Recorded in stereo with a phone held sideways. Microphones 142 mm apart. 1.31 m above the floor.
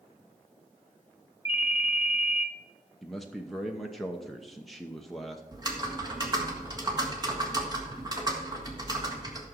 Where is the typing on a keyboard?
30° right (ahead or behind), 2 m.